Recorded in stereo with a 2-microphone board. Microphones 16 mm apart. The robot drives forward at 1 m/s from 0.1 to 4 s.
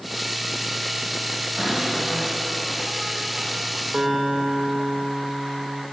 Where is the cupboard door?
70° right (ahead or behind), 9 m; by 3.8 s 60° right (ahead or behind), 10 m.